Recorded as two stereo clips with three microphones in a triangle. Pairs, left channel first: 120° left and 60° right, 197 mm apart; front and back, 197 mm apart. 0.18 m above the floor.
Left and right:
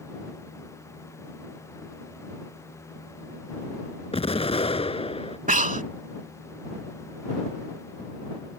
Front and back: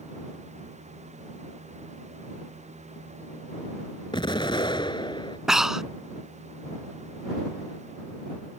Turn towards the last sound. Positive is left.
turn(degrees=-95)